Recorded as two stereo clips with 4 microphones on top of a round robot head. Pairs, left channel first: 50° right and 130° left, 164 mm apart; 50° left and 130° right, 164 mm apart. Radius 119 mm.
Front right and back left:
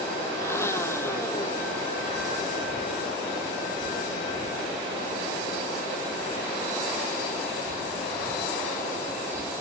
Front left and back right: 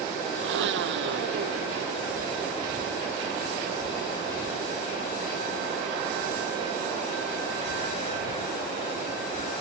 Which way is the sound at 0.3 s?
125° right.